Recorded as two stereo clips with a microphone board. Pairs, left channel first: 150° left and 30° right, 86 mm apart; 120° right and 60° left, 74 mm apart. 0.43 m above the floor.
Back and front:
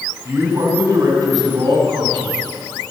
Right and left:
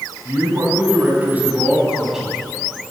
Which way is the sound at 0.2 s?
20° left.